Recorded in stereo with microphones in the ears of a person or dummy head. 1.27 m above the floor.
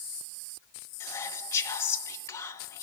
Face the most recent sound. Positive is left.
turn(degrees=15)  # may be behind; listen again after turning